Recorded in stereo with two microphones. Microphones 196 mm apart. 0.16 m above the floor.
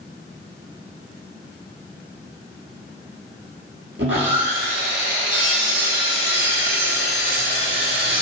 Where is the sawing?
75° right (ahead or behind), 0.6 m.